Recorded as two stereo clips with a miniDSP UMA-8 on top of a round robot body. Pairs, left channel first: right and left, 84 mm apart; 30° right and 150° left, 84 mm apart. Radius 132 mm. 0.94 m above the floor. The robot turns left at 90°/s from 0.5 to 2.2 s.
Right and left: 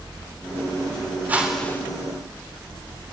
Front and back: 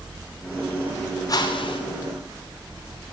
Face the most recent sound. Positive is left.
turn(degrees=-60)